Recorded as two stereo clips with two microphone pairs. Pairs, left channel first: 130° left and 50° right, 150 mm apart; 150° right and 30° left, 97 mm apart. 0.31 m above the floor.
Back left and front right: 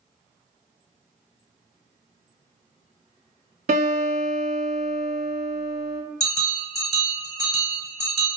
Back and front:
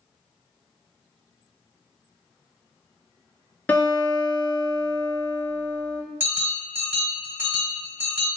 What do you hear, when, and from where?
3.7 s a guitar: 80° right, 0.9 m
6.2 s a bell: 80° left, 1.4 m